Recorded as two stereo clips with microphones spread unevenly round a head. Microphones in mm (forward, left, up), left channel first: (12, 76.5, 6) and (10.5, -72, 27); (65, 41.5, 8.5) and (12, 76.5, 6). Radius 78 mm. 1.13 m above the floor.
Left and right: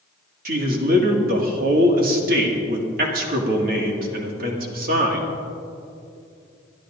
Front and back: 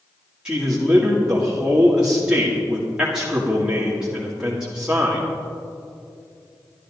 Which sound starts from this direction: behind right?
A man speaking, at 0.5 s.